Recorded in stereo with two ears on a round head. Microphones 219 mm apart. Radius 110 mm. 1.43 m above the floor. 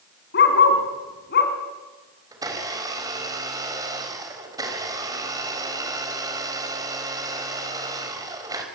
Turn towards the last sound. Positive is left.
turn(degrees=-15)  # may be behind; listen again after turning